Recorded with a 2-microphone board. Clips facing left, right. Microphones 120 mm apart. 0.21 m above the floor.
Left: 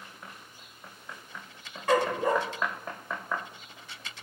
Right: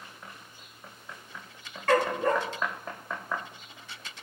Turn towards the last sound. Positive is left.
turn(degrees=10)  # may be behind; listen again after turning